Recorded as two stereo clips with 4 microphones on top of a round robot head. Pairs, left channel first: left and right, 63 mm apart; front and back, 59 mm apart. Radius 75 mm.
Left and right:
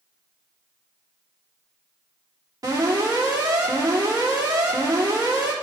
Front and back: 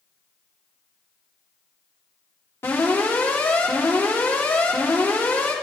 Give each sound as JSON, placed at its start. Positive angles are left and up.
{"t": 2.6, "sound": "an alarm", "azimuth_deg": -55, "distance_m": 3.5}